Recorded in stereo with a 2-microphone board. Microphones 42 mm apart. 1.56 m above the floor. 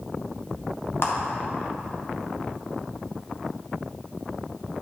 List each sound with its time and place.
1.0 s a clap: 65° left (ahead or behind), 1.0 m